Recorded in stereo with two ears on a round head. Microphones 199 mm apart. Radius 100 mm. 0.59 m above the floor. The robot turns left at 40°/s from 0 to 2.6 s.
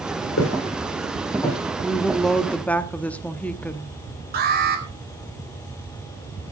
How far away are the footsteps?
About 8 m.